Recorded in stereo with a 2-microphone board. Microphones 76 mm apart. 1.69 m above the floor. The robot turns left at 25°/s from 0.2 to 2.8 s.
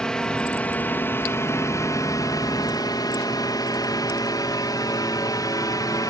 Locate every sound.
0.0 s a drone: 10° left (ahead or behind); by 6.1 s 55° left (ahead or behind)